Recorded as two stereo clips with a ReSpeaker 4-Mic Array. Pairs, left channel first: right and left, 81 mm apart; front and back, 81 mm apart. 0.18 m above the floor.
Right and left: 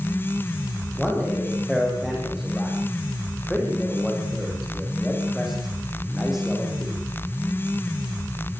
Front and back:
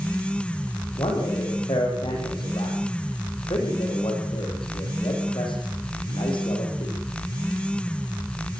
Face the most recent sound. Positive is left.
turn(degrees=0)